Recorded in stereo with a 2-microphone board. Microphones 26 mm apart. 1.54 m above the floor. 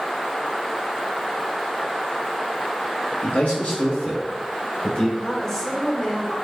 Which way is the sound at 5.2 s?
15° left (ahead or behind).